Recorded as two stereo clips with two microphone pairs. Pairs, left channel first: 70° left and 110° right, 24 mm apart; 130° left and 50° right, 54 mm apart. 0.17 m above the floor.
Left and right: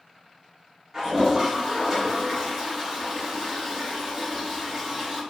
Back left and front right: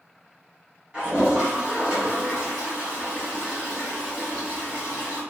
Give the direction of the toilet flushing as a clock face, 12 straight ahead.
3 o'clock.